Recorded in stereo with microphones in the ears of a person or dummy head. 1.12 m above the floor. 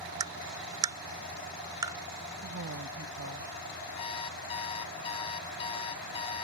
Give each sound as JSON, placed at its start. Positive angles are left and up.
{"t": 0.2, "sound": "tapping", "side_deg": -15}
{"t": 2.4, "sound": "a woman speaking", "side_deg": -65}
{"t": 4.0, "sound": "an alarm clock", "side_deg": 25}